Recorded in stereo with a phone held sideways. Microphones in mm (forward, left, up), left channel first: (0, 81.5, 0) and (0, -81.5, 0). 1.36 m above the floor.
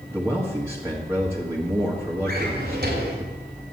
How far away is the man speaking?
About 2.0 m.